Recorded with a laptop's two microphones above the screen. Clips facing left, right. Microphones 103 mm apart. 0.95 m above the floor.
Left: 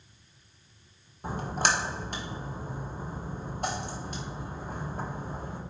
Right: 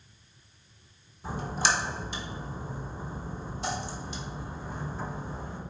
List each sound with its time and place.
1.2 s a splash: 55° left (ahead or behind), 0.8 m